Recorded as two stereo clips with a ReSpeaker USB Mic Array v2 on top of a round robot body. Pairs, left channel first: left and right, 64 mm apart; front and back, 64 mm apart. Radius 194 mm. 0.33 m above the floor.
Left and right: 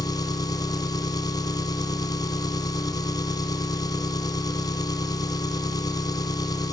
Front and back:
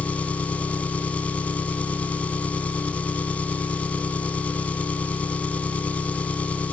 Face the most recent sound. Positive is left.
turn(degrees=70)